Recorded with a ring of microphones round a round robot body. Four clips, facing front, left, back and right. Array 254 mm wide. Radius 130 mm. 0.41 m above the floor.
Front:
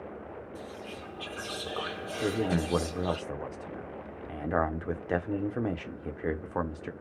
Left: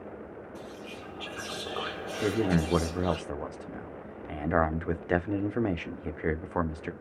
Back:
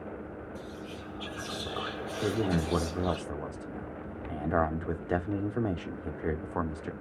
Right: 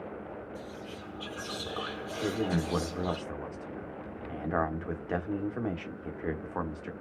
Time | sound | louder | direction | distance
0.6 | whispering | even, even | 50° left | 1.2 m
2.2 | a man speaking | left 4 dB, even | 80° left | 0.8 m